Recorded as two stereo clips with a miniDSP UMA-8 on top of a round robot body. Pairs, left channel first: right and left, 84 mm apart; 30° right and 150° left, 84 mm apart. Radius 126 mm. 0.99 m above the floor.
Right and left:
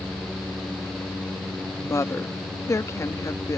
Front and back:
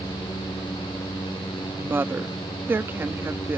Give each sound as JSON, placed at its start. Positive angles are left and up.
{"t": 1.8, "sound": "a woman speaking", "azimuth_deg": -145}